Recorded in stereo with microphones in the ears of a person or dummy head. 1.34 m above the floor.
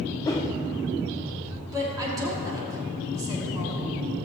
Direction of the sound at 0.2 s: 20° left (ahead or behind).